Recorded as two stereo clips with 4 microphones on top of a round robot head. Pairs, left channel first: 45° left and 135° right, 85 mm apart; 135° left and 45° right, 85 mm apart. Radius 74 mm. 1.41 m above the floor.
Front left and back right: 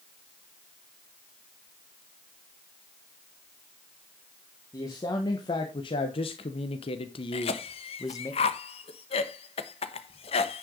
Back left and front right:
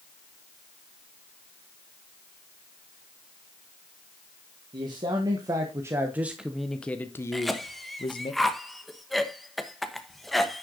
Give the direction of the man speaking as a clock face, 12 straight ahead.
12 o'clock.